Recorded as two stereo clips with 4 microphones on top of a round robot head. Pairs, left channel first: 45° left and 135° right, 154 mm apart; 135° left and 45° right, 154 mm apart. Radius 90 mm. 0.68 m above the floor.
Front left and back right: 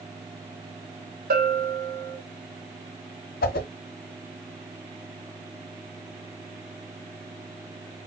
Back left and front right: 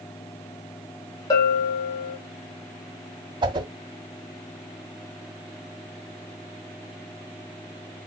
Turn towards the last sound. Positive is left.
turn(degrees=20)